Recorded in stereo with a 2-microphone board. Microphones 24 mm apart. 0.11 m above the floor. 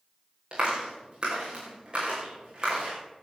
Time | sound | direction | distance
0.5 | a clap | 40° right (ahead or behind) | 6.5 m